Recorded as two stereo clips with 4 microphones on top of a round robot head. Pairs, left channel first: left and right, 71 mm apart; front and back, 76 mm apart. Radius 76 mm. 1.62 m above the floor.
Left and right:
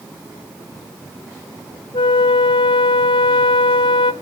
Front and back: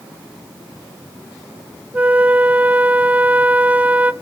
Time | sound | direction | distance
1.9 | a flute | 110° left | 0.6 m